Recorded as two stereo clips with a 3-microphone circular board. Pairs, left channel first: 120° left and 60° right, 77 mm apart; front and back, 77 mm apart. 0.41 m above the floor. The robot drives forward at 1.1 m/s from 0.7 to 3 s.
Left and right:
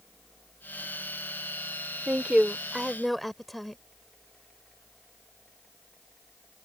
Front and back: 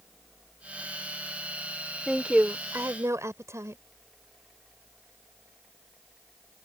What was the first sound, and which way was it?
A woman speaking, 95° right.